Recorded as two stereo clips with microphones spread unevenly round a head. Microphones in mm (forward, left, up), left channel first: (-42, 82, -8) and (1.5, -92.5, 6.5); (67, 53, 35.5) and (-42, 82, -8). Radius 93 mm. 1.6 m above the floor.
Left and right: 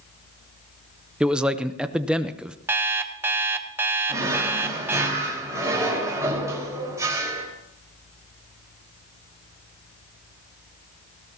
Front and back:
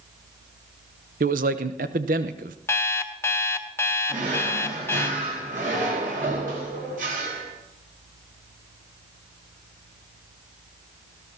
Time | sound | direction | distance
1.2 | a man speaking | 155° right | 0.8 m
2.7 | an alarm clock | 10° right | 0.8 m
4.1 | a drawer | 150° right | 4 m